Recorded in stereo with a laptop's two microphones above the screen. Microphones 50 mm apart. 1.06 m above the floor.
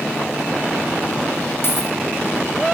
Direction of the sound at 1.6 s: 50° left (ahead or behind).